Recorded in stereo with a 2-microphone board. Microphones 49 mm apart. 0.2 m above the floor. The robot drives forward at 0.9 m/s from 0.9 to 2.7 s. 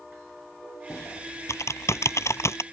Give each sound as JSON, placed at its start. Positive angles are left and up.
{"t": 0.9, "sound": "typing on a keyboard", "side_deg": 75}